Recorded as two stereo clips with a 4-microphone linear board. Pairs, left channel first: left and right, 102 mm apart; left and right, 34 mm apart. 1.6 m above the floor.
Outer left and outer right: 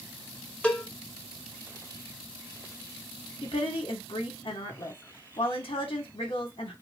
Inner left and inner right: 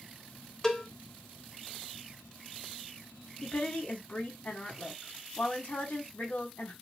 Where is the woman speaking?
60° left (ahead or behind), 0.8 m.